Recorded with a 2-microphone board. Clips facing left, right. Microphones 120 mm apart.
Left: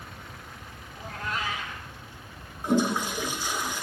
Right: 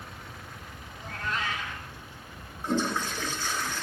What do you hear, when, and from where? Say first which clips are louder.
1.0 s a cat meowing: even; 10° left (ahead or behind), 9 m
2.6 s a toilet flushing: left 4 dB; 15° left (ahead or behind), 1.2 m